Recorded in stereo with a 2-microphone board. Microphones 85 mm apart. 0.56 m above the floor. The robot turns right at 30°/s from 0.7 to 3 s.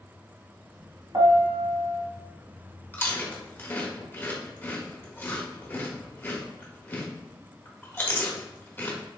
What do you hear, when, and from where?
1.1 s a piano: 60° right (ahead or behind), 0.8 m; by 2.0 s 70° right (ahead or behind), 0.8 m
2.9 s chewing: 25° left (ahead or behind), 1.0 m